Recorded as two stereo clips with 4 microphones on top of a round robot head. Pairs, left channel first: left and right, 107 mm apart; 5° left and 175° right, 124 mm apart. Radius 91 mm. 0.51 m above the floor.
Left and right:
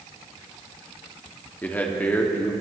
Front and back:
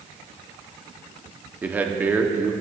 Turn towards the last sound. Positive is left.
turn(degrees=135)